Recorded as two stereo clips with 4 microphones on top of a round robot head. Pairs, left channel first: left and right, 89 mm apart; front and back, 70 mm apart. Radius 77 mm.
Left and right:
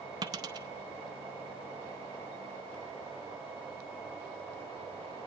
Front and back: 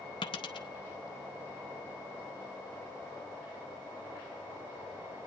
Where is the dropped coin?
35° right, 0.6 m.